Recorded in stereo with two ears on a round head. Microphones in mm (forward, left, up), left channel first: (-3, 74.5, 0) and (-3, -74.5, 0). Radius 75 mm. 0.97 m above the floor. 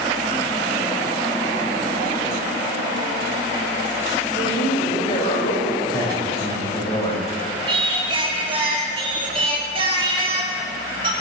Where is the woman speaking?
30° left (ahead or behind), 5 m.